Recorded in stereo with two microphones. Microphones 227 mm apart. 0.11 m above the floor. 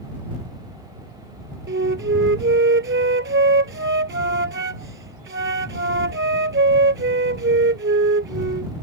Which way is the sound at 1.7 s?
60° right (ahead or behind).